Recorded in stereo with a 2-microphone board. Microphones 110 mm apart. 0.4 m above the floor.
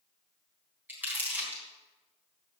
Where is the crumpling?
15° right (ahead or behind), 3.5 m.